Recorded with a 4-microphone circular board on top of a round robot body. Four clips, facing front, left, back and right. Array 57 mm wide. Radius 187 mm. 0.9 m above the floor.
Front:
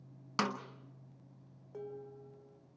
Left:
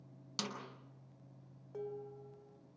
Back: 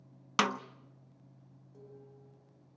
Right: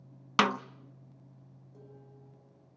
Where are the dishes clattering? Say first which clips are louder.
Left 11 dB, front 9 dB; 45° left, 3 m.